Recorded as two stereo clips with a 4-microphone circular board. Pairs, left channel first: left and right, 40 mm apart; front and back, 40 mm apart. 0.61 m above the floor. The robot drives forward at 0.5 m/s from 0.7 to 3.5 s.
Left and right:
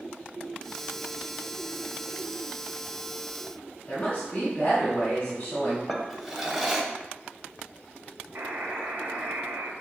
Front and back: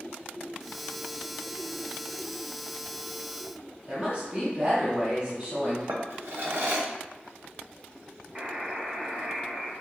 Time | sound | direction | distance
3.9 | a woman speaking | 130° left | 1.4 m
5.9 | a drawer | 175° right | 0.7 m
8.3 | a buzzer | 115° right | 1.0 m